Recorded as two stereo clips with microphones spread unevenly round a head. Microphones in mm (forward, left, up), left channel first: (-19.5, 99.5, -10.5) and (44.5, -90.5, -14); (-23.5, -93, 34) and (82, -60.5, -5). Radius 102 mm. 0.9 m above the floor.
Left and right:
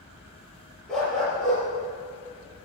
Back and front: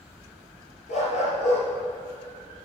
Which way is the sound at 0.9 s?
165° right.